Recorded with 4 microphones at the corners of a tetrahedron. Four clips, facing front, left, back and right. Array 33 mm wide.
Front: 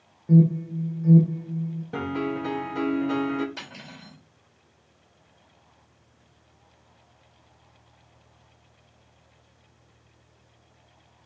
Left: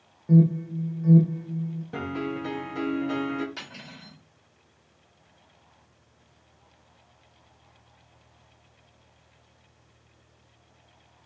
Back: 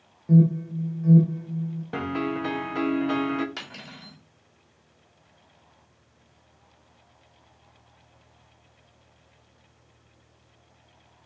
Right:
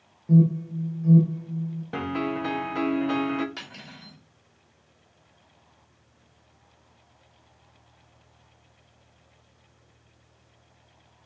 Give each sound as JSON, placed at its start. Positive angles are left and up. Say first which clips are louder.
{"t": 0.3, "sound": "an alarm", "louder": "even, even", "azimuth_deg": 105, "distance_m": 0.8}
{"t": 1.9, "sound": "a piano", "louder": "right 4 dB, back 1 dB", "azimuth_deg": -135, "distance_m": 0.6}
{"t": 3.6, "sound": "cutlery clinking", "louder": "even, back 1 dB", "azimuth_deg": -165, "distance_m": 2.0}